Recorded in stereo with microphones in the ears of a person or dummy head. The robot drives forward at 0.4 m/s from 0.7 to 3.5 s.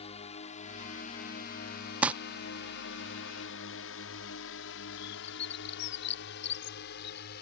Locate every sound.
0.0 s a drone: 30° left (ahead or behind); by 7.4 s 60° left (ahead or behind)
2.0 s crumpling: 5° right (ahead or behind); by 2.1 s 10° right (ahead or behind)
5.0 s a bird: 55° left (ahead or behind)